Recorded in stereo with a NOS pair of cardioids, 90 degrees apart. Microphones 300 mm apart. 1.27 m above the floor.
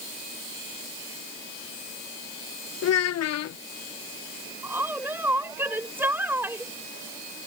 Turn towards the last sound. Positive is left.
turn(degrees=-5)